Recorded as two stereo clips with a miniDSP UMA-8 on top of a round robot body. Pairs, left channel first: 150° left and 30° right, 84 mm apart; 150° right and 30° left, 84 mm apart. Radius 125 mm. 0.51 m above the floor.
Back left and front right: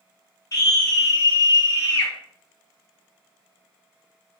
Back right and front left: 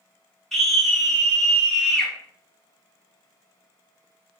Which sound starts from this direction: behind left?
A scream, at 0.5 s.